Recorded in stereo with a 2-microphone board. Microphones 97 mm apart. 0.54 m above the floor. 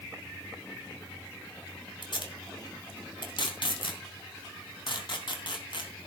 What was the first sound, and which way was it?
Tape being pulled, 55° left (ahead or behind).